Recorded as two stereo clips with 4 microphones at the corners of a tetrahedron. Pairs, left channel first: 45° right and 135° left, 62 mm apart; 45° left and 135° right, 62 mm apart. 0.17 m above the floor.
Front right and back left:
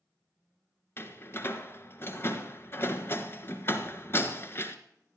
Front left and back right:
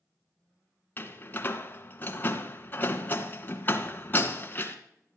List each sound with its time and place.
1.0 s a door slam: 5° right, 1.5 m